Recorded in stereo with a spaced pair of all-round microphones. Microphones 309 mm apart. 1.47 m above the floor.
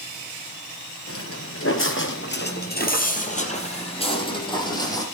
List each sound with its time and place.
1.1 s footsteps: 45° left (ahead or behind), 2 m; by 5.0 s 10° left (ahead or behind), 4 m